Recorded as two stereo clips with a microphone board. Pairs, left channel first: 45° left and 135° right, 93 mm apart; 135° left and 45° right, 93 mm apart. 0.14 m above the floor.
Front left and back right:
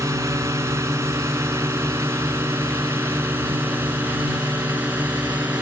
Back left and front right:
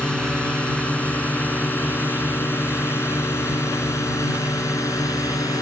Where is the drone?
155° right; by 5.6 s 160° left.